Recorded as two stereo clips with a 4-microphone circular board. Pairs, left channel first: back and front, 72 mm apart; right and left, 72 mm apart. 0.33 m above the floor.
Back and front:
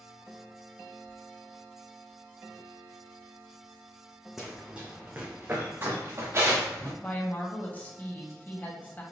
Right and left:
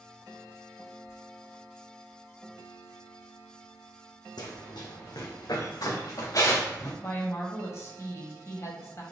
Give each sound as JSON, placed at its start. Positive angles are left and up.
{"t": 4.4, "sound": "running footsteps", "azimuth_deg": -85, "distance_m": 1.1}
{"t": 7.0, "sound": "a woman speaking", "azimuth_deg": -120, "distance_m": 1.5}